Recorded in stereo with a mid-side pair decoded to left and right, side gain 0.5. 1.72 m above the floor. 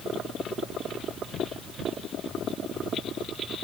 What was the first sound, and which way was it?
Only background noise.